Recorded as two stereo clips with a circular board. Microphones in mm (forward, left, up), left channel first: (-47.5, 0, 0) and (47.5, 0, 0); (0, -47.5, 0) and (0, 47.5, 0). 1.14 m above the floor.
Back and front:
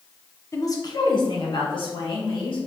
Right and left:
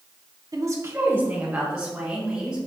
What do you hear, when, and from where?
0.5 s a woman speaking: 130° left, 0.8 m; by 2.6 s 175° left, 2.5 m